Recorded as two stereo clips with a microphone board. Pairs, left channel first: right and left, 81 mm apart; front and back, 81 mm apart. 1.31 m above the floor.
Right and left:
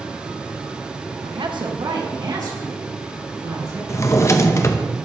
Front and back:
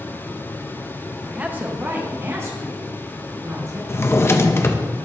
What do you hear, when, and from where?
1.2 s a woman speaking: 100° left, 1.0 m; by 3.8 s 130° left, 3.5 m
3.9 s a drawer: 50° right, 0.6 m